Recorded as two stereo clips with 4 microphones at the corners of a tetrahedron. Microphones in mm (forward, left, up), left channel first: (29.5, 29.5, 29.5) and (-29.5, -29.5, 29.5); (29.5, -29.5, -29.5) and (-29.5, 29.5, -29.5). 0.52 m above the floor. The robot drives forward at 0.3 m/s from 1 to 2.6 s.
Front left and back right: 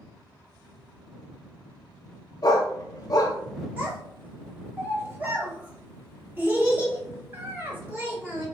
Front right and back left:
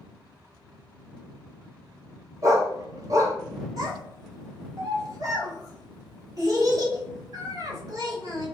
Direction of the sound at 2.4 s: 85° left.